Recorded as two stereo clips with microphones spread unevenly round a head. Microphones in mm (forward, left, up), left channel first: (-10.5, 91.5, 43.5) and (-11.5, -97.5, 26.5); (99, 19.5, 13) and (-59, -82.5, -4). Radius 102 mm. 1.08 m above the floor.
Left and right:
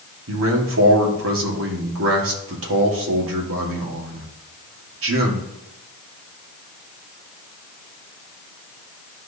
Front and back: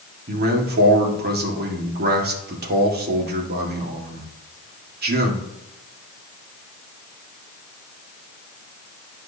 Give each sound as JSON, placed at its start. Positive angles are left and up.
{"t": 0.3, "sound": "a man speaking", "azimuth_deg": -105, "distance_m": 1.8}